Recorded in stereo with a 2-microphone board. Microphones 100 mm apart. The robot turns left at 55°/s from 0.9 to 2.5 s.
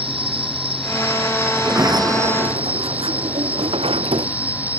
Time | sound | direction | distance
0.0 | an insect | 75° right | ?
1.6 | a sliding door | 15° right | ?